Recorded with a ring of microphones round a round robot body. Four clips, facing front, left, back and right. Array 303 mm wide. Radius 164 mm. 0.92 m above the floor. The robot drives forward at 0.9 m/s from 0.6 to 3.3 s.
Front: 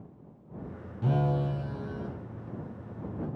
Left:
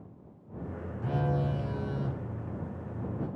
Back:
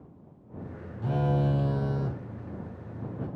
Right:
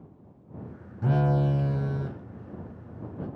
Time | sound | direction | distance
1.0 | a phone buzzing | 65° right | 0.6 m